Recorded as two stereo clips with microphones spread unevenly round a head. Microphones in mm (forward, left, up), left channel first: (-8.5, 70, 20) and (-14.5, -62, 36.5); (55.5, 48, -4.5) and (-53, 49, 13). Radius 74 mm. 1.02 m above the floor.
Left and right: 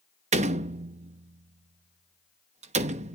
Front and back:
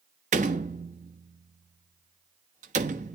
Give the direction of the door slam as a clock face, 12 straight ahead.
4 o'clock.